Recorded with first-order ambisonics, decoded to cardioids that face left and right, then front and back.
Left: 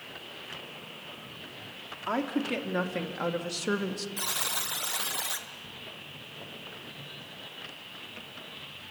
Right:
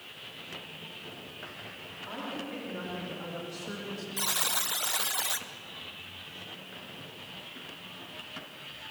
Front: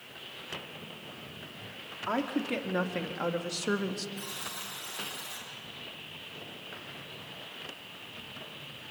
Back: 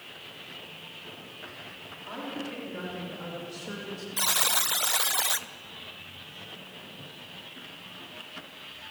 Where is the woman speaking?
45° left, 3 m.